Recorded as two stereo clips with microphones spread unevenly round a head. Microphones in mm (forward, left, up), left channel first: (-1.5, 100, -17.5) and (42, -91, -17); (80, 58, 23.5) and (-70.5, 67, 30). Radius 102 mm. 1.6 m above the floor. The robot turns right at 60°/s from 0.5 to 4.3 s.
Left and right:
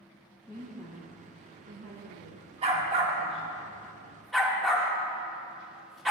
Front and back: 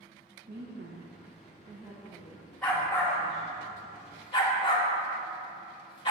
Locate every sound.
0.5 s a woman speaking: 170° left, 1.1 m; by 3.6 s 5° right, 1.1 m
2.6 s a dog barking: 85° right, 1.3 m; by 6.1 s 15° left, 1.3 m